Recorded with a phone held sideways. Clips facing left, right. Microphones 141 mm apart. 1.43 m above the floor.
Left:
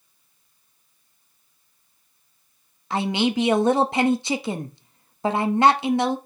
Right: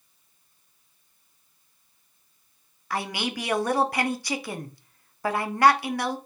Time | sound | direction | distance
2.9 | a man speaking | 20° left (ahead or behind) | 0.7 m